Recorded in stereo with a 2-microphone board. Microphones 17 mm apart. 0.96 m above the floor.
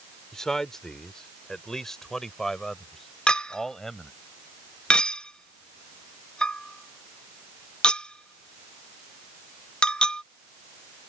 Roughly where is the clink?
Left.